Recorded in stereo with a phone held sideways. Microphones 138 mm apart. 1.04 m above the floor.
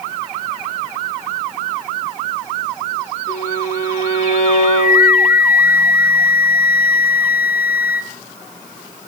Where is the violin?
55° left (ahead or behind), 7 m.